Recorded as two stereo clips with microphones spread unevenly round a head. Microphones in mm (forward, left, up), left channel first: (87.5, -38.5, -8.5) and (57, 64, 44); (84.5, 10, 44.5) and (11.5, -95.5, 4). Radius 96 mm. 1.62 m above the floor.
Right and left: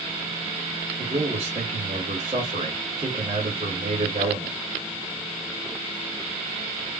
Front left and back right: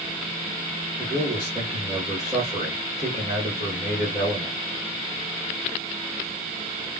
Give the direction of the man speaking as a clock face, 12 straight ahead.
7 o'clock.